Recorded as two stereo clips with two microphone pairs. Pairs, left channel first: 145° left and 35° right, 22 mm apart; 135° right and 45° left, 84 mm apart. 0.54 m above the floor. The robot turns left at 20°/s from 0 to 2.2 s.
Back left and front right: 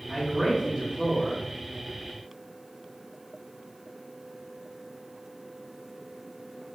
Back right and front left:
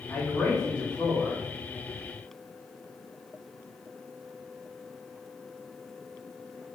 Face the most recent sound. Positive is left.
turn(degrees=-140)